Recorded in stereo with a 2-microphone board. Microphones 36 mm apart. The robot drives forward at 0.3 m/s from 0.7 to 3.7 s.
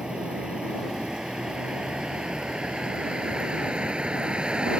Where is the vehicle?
20° right (ahead or behind); by 4.8 s 30° right (ahead or behind).